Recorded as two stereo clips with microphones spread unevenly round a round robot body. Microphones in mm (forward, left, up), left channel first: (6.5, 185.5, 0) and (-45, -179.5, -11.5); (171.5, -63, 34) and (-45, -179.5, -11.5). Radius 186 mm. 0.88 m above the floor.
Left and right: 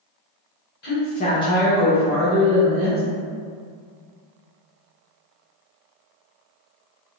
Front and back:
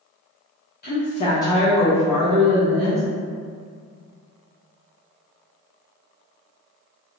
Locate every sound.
0.8 s a woman speaking: 55° left, 0.8 m; by 3.0 s 155° right, 1.1 m